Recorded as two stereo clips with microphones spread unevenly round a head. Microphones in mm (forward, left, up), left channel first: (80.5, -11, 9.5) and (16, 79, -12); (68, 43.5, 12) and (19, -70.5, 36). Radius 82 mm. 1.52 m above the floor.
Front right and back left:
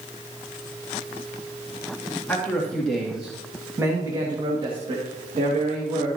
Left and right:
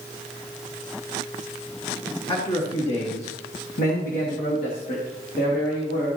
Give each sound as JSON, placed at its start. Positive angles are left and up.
{"t": 2.3, "sound": "a man speaking", "azimuth_deg": 20, "distance_m": 2.0}